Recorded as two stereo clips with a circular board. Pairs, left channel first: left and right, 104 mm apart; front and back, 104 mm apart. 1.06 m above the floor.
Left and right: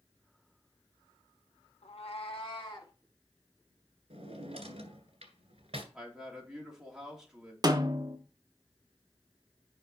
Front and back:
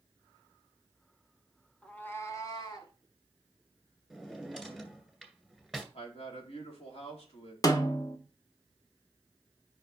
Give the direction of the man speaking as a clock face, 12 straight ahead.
12 o'clock.